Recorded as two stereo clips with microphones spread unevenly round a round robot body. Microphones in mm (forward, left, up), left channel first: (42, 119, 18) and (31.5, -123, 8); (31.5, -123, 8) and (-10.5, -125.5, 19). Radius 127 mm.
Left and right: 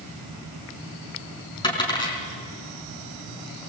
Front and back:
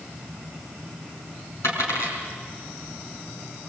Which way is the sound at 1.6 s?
15° left.